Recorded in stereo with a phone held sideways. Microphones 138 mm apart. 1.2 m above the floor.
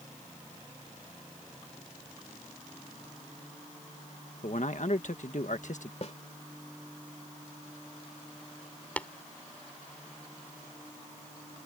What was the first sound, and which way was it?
A man speaking, 60° left (ahead or behind).